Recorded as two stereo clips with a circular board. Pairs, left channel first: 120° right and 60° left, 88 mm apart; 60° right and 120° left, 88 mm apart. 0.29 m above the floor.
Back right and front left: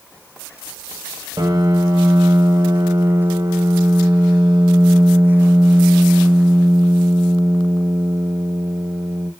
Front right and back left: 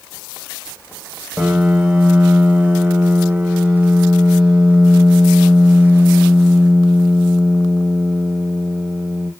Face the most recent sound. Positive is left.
turn(degrees=45)